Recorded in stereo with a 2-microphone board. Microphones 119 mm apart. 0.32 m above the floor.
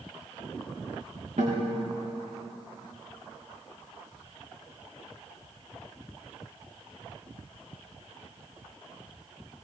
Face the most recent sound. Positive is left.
turn(degrees=-90)